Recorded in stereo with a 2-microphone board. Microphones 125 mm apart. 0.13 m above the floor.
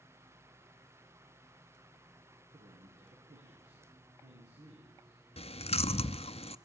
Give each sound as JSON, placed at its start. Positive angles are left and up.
{"t": 2.5, "sound": "a man speaking", "side_deg": -85, "distance_m": 9.5}
{"t": 5.4, "sound": "chewing", "side_deg": 55, "distance_m": 0.7}